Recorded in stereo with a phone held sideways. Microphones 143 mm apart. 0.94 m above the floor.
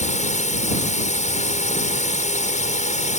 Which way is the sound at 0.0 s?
55° left (ahead or behind).